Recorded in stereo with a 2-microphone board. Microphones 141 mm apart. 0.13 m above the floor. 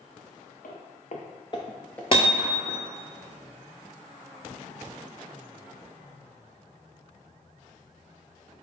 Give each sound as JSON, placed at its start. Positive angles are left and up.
{"t": 0.6, "sound": "footsteps", "side_deg": 80, "distance_m": 0.9}
{"t": 2.1, "sound": "hammering", "side_deg": 40, "distance_m": 0.8}